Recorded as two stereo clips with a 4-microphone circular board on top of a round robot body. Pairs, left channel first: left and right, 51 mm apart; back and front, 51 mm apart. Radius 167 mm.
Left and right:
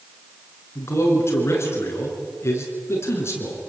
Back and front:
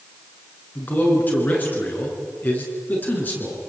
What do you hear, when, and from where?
0.8 s a man speaking: 125° left, 6.5 m